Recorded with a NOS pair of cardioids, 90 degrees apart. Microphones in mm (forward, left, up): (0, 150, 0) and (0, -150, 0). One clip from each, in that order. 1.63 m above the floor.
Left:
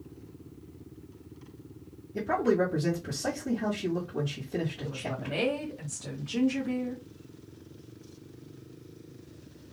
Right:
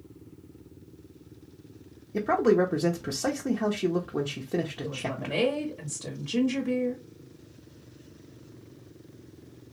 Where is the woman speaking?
30° right, 1.2 m.